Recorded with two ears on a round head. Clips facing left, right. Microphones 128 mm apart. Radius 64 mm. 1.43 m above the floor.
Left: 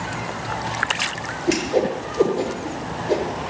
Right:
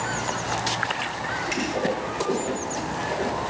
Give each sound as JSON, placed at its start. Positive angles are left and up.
{"t": 1.5, "sound": "a whoosh", "side_deg": 55, "distance_m": 7.5}